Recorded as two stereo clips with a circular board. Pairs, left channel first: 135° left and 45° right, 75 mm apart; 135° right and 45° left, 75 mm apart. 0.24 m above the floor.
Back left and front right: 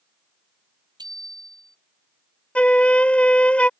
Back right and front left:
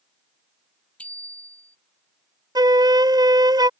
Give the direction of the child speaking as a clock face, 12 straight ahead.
No child speaking in this recording.